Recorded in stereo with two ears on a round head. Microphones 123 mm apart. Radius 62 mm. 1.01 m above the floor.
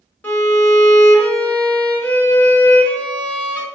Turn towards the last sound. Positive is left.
turn(degrees=10)  # may be behind; listen again after turning